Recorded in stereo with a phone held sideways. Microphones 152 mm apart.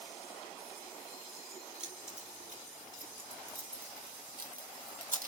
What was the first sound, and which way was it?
Keys jangling, 60° right (ahead or behind).